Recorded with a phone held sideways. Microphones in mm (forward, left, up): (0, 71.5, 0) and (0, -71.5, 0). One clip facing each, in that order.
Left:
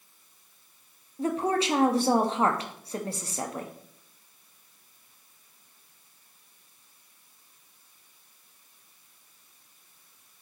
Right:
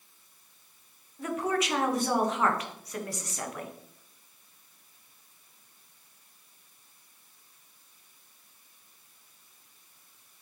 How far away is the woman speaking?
About 1.0 m.